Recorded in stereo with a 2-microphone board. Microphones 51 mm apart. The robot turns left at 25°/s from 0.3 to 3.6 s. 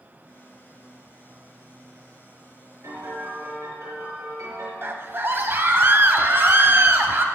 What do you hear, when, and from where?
2.8 s a piano: 75° right (ahead or behind), 7 m
4.8 s a scream: 45° right (ahead or behind), 1.9 m